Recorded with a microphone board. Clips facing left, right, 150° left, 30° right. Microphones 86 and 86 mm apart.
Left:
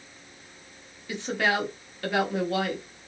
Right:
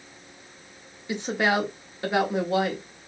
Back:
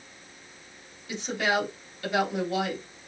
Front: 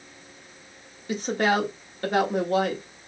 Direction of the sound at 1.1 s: 35° right.